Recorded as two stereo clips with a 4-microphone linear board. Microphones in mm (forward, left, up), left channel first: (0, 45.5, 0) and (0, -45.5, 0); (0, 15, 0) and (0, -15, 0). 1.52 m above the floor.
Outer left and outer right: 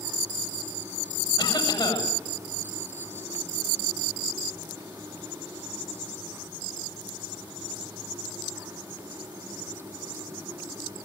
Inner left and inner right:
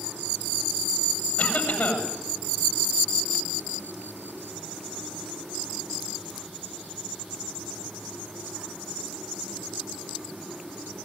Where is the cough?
70° left (ahead or behind), 8.5 m.